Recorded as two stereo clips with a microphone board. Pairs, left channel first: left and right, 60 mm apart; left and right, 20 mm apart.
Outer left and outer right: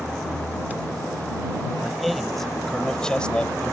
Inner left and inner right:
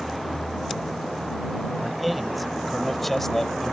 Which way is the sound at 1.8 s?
Centre (ahead or behind).